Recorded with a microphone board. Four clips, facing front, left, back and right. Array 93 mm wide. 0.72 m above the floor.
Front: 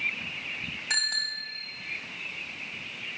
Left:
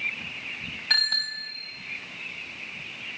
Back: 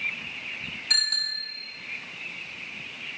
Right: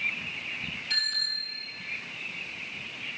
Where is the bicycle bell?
65° left, 3 m.